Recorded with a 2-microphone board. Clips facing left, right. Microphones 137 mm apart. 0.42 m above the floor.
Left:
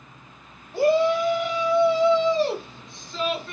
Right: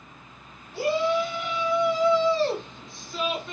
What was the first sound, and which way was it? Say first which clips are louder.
A shout: left 5 dB; 55° left (ahead or behind).